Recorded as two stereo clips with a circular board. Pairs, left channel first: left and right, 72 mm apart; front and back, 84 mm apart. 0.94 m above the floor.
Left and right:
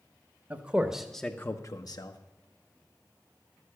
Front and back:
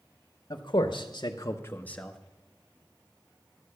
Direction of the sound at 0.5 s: 30° right.